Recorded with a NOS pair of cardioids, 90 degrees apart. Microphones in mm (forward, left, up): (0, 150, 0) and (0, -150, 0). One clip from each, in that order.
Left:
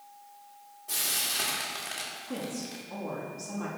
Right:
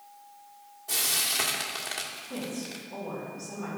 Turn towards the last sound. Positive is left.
turn(degrees=55)